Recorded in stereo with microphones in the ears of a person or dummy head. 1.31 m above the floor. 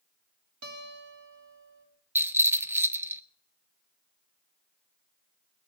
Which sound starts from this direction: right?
A guitar, at 0.6 s.